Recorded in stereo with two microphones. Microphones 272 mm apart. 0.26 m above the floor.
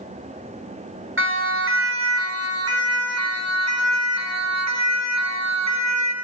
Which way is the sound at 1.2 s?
45° right (ahead or behind).